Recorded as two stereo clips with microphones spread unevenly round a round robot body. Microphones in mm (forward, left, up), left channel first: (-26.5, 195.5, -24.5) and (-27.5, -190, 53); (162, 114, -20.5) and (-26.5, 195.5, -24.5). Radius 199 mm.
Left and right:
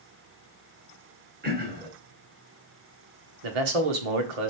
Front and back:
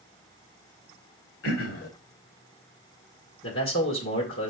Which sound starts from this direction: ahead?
Throat clearing, at 1.4 s.